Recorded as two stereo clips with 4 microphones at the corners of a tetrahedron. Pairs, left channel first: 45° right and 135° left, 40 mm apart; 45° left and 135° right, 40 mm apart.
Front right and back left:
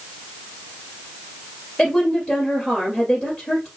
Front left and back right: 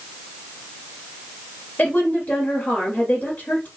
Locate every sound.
1.8 s a woman speaking: 15° left, 2 m